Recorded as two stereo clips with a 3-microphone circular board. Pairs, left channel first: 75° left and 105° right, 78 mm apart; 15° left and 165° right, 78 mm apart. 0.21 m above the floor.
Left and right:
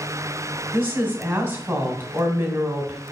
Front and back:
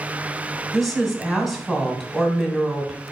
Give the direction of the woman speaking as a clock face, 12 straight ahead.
2 o'clock.